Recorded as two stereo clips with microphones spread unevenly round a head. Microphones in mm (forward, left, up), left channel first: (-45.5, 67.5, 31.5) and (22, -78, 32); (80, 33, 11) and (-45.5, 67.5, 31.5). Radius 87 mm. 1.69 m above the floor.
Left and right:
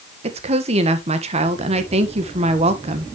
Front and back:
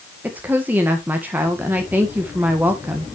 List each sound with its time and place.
0.2 s a woman speaking: 115° right, 1.4 m